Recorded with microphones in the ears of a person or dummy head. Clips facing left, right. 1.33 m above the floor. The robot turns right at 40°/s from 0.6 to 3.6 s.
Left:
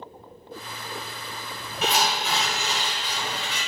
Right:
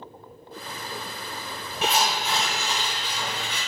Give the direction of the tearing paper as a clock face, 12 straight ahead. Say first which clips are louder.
Even; 8 o'clock.